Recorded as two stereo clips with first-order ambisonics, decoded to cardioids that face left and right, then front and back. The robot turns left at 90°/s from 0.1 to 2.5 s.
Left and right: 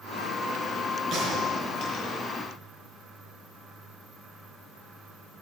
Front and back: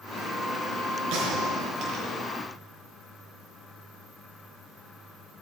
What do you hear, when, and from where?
1.1 s a gunshot: 150° right, 4.5 m; by 2.1 s 115° left, 4.5 m